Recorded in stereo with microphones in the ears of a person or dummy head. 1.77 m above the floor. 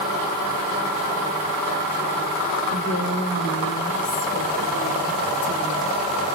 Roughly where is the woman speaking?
Left.